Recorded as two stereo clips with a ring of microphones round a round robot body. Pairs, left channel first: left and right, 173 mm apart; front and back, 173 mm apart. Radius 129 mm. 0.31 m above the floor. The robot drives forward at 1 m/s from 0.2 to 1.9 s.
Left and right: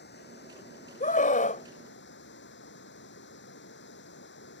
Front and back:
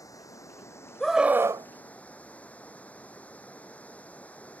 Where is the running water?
70° left; by 4.6 s 80° left.